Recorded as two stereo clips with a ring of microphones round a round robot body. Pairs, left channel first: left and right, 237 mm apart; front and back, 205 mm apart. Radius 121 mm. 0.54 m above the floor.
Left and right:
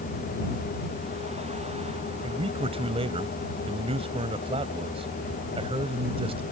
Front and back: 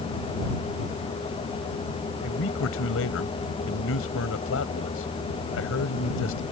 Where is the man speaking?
25° right.